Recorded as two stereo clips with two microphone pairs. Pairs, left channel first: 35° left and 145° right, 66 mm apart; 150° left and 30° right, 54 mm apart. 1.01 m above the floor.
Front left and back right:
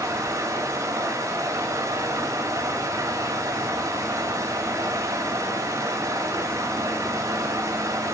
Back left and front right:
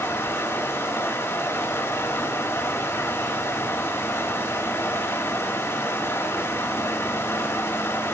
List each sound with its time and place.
0.0 s running water: 175° left, 2.5 m